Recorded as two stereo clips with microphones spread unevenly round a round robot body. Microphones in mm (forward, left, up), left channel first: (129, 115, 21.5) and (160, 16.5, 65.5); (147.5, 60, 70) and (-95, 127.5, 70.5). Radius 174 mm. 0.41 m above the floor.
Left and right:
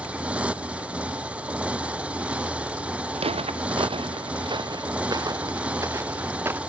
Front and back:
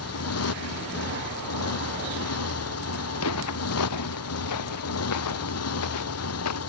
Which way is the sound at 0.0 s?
5° left.